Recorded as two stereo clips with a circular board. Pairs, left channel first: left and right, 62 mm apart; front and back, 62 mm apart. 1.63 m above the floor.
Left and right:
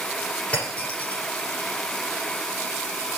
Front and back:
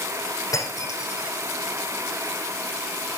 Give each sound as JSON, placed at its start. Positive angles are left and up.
{"t": 0.5, "sound": "breaking glass", "azimuth_deg": 20, "distance_m": 10.0}